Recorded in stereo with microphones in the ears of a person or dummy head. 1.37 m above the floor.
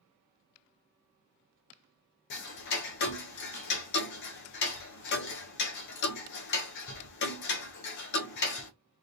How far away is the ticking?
About 0.5 m.